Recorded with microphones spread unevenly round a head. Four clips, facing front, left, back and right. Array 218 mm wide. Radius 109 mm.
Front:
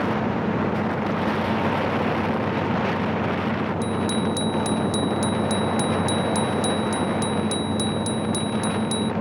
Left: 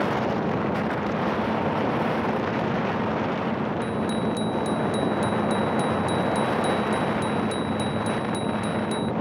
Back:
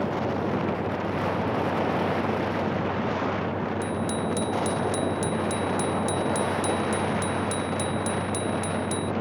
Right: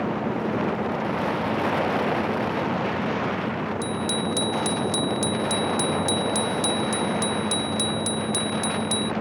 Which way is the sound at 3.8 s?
95° right.